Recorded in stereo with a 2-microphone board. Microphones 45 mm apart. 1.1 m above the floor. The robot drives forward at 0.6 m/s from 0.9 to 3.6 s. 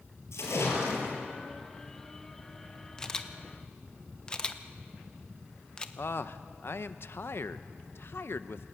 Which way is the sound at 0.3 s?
80° left.